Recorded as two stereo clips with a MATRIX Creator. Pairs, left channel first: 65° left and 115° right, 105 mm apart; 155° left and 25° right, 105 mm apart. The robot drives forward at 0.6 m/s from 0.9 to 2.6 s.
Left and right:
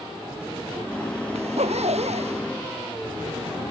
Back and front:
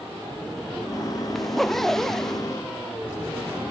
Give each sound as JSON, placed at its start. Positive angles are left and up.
{"t": 1.4, "sound": "a zipper", "azimuth_deg": -115}